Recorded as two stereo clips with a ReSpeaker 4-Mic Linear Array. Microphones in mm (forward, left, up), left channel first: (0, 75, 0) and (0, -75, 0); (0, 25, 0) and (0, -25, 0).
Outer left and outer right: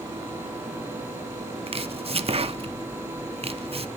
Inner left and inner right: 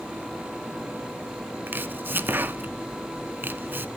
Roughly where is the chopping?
Right.